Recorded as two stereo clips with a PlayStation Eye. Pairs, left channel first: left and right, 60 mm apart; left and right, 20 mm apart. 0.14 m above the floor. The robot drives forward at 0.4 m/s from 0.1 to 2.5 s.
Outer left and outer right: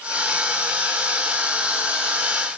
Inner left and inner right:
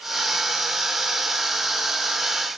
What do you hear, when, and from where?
Only background noise.